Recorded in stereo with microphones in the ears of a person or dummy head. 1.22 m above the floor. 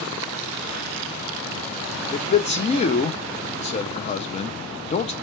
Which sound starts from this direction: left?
A man speaking, at 2.1 s.